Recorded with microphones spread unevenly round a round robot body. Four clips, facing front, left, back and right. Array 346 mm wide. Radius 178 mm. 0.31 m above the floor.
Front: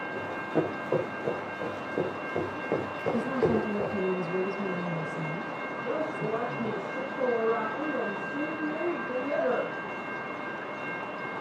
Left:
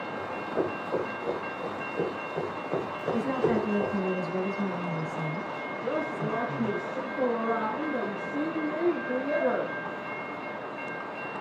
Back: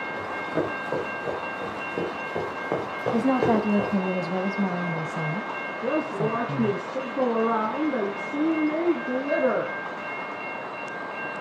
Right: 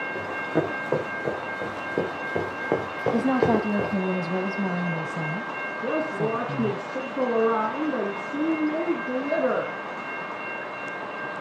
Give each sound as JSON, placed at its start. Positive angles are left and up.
{"t": 0.1, "sound": "running footsteps", "azimuth_deg": -90, "distance_m": 8.0}
{"t": 3.1, "sound": "a woman speaking", "azimuth_deg": -140, "distance_m": 2.0}
{"t": 5.8, "sound": "a woman speaking", "azimuth_deg": -140, "distance_m": 3.5}